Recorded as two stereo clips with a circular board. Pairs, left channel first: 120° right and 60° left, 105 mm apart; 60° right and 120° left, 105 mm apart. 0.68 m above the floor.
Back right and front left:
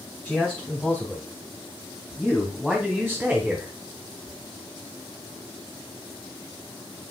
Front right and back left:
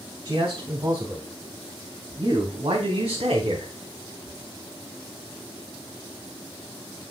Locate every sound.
0.2 s a man speaking: 165° left, 3 m; by 3.7 s 135° left, 1.4 m